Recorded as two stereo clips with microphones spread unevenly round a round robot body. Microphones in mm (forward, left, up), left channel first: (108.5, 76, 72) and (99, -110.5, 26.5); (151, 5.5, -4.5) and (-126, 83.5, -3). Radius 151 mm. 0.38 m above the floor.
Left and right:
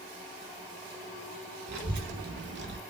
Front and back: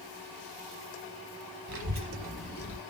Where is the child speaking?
150° right, 1.3 m; by 2.8 s 85° right, 1.4 m.